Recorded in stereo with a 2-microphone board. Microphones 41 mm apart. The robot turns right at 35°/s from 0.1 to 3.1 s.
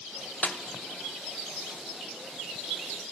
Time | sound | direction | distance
0.4 | a snare drum | 30° left (ahead or behind) | 0.8 m